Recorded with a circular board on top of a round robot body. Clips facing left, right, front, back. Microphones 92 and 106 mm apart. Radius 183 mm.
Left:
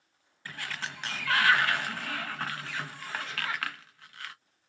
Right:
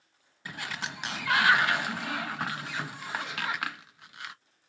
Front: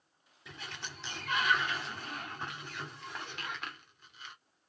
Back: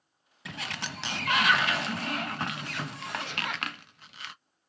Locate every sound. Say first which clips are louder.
0.5 s a sliding door: right 1 dB, back 8 dB; 165° right, 0.6 m